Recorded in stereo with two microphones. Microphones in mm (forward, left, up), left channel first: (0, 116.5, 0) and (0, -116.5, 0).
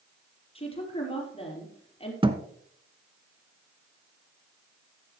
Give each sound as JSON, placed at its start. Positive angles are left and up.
{"t": 0.6, "sound": "a woman speaking", "side_deg": 25, "distance_m": 6.0}
{"t": 2.2, "sound": "a thud", "side_deg": -25, "distance_m": 1.1}